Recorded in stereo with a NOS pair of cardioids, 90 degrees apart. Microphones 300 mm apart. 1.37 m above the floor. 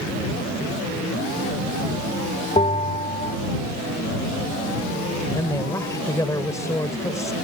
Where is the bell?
20° left.